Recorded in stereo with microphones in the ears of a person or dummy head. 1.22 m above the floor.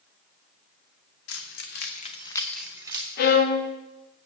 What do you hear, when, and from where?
1.3 s keys jangling: 75° left (ahead or behind), 1.6 m; by 3.1 s 25° right (ahead or behind), 1.4 m
3.2 s a violin: 55° left (ahead or behind), 1.3 m